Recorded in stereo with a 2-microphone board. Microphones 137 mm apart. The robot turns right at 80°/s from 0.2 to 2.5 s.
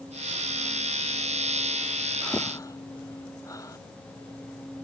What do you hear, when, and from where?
2.2 s breathing: centre (ahead or behind); by 3.8 s 25° left (ahead or behind)